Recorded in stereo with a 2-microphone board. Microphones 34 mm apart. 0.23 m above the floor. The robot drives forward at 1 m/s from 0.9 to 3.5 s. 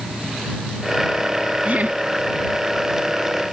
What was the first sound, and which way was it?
Laughter, 50° right (ahead or behind).